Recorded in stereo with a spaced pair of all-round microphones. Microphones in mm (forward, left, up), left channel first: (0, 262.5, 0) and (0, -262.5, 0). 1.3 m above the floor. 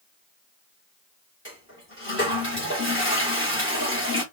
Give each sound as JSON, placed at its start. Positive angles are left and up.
{"t": 1.4, "sound": "a toilet flushing", "side_deg": 20, "distance_m": 1.9}